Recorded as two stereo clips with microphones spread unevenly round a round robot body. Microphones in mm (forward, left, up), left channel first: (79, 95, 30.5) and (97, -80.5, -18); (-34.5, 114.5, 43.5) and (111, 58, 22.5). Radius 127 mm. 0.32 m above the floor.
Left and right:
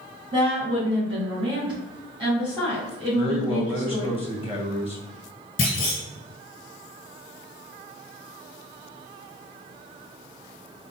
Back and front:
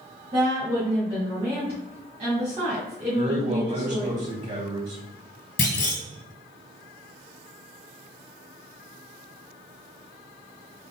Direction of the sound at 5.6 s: 155° left.